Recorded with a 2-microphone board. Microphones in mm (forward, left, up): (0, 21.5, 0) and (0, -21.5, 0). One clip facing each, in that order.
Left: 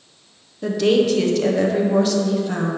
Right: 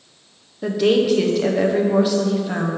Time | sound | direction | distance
0.6 | a woman speaking | 10° right (ahead or behind) | 0.6 m